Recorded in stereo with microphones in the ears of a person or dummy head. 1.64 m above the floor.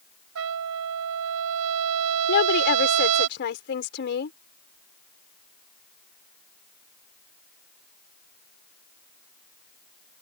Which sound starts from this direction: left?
A woman speaking, at 2.3 s.